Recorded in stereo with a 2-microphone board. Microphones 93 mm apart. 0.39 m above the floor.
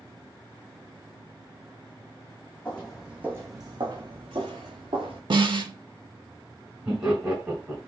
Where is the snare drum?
60° right (ahead or behind), 0.5 m.